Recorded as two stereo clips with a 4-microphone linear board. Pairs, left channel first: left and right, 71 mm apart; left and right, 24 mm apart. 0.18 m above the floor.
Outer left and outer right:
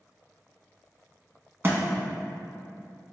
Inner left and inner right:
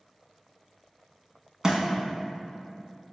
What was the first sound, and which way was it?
A thud, 35° right (ahead or behind).